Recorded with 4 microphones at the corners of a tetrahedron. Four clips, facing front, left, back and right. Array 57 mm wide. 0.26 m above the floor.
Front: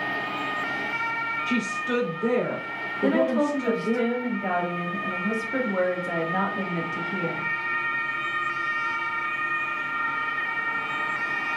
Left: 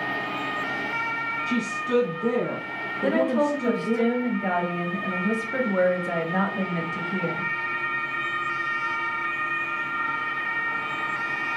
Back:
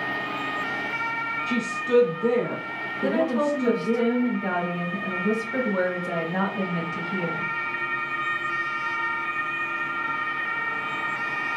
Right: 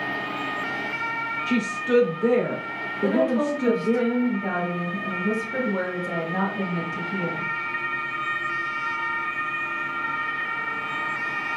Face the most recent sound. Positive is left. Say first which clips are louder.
# even, front 1 dB
turn(degrees=70)